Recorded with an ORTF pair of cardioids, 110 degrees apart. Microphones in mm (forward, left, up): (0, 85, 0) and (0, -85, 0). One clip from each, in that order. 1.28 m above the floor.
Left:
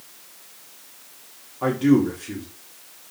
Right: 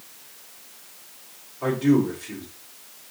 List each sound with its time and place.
1.6 s a man speaking: 40° left, 1.3 m